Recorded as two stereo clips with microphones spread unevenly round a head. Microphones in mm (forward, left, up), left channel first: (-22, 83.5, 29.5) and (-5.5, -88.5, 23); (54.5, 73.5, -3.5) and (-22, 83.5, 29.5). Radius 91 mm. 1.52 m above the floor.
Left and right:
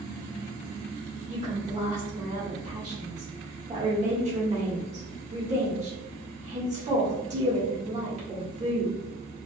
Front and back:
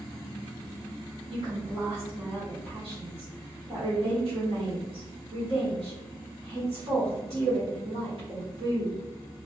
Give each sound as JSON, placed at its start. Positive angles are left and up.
{"t": 1.3, "sound": "a woman speaking", "azimuth_deg": -135, "distance_m": 1.5}